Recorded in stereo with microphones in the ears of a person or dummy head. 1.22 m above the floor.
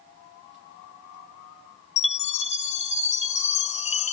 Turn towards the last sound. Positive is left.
turn(degrees=35)  # may be behind; listen again after turning